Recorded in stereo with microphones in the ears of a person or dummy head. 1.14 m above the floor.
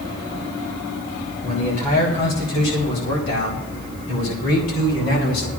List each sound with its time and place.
1.4 s a man speaking: 40° left (ahead or behind), 4 m; by 5.5 s 85° left, 7.5 m